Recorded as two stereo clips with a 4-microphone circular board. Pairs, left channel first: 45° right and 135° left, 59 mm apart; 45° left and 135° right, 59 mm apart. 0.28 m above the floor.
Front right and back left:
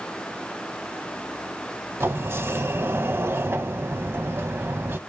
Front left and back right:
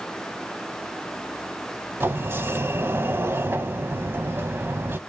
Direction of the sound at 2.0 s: Straight behind.